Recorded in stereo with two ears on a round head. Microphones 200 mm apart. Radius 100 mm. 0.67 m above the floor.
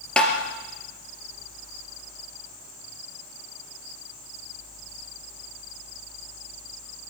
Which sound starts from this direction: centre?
Tapping, at 0.2 s.